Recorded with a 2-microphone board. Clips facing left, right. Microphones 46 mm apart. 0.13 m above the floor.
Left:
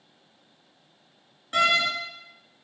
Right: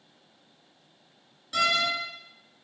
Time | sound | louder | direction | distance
1.5 | a door slam | left 3 dB | 35° left (ahead or behind) | 1.4 m